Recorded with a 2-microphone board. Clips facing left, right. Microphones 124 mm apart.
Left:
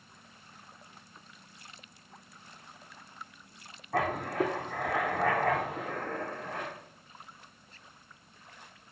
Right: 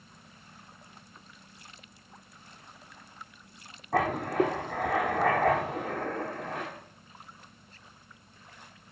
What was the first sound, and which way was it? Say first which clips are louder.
Writing: right 3 dB; 85° right.